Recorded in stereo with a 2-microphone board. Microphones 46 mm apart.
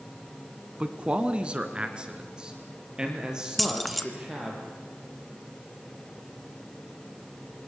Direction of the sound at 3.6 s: 5° left (ahead or behind).